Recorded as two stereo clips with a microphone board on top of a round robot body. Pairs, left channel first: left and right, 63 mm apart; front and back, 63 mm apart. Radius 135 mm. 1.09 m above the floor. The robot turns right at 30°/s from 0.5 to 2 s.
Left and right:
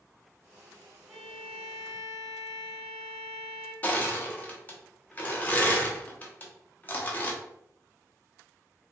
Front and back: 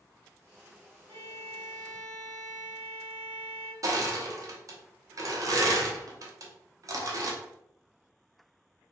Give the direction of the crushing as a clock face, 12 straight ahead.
7 o'clock.